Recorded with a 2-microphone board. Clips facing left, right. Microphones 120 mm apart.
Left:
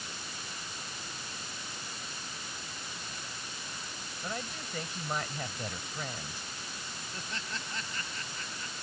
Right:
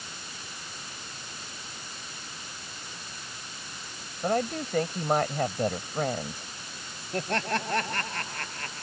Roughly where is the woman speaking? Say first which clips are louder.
Right 13 dB; right.